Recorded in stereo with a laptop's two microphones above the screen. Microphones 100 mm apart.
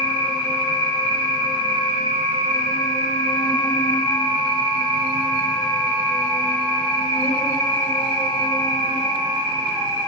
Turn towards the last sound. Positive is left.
turn(degrees=80)